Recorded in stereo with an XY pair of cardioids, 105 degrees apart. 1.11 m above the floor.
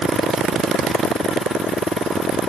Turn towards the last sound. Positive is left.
No sound to turn to.